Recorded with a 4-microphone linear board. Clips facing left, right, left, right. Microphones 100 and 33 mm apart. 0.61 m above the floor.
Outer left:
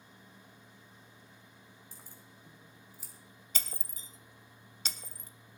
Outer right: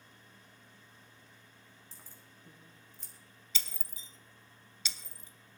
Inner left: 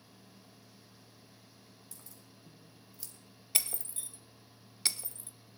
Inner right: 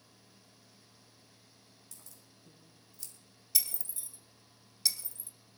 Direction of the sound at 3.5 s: 45° left (ahead or behind).